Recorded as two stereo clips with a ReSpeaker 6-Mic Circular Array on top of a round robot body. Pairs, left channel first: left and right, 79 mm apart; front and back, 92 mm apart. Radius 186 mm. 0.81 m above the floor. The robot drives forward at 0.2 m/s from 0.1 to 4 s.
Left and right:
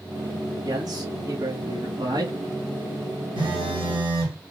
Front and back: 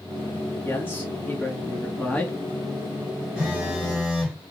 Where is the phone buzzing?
100° right, 1.7 m.